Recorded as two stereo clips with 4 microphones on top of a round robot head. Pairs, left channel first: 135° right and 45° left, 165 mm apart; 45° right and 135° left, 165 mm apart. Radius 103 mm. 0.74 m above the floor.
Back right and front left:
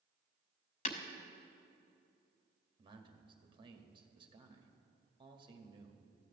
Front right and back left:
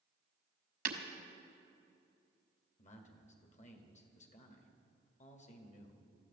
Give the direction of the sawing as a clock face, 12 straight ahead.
I don't hear sawing.